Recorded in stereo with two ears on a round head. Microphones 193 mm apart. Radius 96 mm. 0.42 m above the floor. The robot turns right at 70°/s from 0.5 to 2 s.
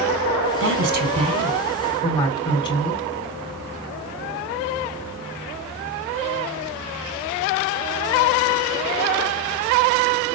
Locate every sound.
0.6 s a woman speaking: 75° right, 4.5 m; by 3.0 s 25° left, 4.5 m